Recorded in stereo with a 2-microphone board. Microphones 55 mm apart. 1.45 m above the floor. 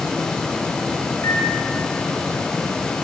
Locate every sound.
1.2 s a microwave: 75° left (ahead or behind), 2.5 m